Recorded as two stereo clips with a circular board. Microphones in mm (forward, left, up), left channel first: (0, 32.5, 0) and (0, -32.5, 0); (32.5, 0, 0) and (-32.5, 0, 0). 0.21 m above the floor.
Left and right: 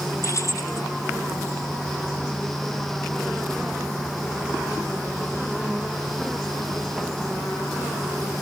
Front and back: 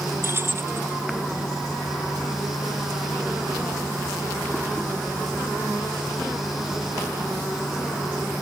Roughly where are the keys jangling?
Behind left.